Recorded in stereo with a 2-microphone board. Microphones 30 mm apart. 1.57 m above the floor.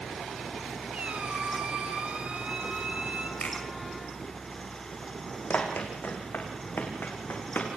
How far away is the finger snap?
About 8.5 m.